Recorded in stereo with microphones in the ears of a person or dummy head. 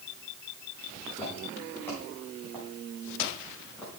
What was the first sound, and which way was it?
Footsteps, 10° left (ahead or behind).